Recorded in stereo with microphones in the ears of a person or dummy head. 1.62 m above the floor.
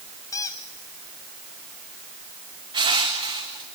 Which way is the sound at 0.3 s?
15° left (ahead or behind).